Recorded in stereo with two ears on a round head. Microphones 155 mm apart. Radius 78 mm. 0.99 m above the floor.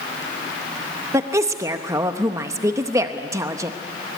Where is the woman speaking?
20° right (ahead or behind), 0.8 m.